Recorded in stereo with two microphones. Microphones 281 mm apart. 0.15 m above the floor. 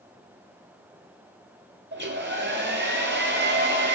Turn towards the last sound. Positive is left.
turn(degrees=-40)  # may be behind; listen again after turning